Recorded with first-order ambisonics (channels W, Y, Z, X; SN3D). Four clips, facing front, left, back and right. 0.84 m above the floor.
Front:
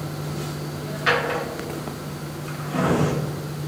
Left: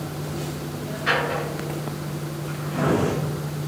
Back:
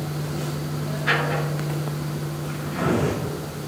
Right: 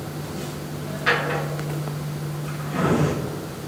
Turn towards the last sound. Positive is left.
turn(degrees=-20)